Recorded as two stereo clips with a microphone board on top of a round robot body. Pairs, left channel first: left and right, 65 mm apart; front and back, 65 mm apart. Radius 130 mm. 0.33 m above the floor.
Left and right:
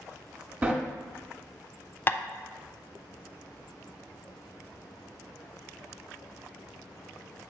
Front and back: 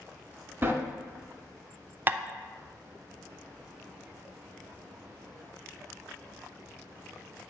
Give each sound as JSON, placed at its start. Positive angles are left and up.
{"t": 0.6, "sound": "a sliding door", "azimuth_deg": -150, "distance_m": 1.7}
{"t": 2.1, "sound": "tapping", "azimuth_deg": 135, "distance_m": 0.5}